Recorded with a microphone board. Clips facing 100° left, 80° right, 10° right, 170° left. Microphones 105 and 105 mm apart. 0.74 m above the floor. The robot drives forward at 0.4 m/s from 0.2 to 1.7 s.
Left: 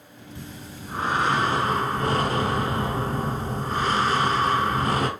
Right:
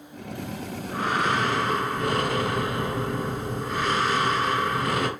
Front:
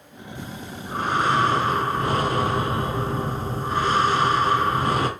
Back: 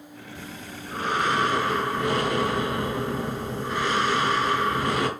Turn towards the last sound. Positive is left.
turn(degrees=40)